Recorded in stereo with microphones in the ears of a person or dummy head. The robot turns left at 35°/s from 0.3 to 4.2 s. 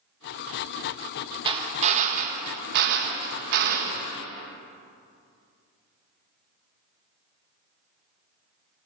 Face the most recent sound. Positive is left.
turn(degrees=-125)